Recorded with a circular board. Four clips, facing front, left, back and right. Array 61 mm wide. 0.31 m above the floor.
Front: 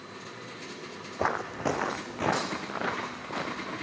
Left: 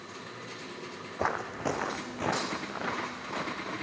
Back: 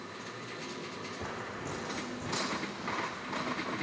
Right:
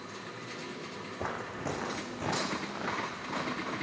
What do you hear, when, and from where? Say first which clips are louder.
1.2 s footsteps: left 6 dB, front 13 dB; 35° left, 1.1 m; by 3.7 s 10° left, 2.5 m